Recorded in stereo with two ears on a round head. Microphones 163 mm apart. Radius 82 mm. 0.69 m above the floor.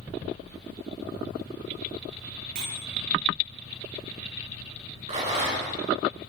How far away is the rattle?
About 8.5 m.